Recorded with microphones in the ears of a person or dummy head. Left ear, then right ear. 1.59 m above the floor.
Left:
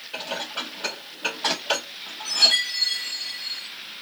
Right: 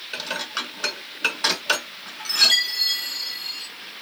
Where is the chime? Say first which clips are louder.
Right 1 dB; 30° right (ahead or behind), 1.5 m.